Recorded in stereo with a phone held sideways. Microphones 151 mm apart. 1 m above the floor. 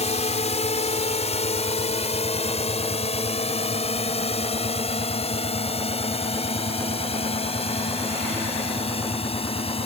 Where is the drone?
45° left (ahead or behind); by 9.9 s 40° left (ahead or behind).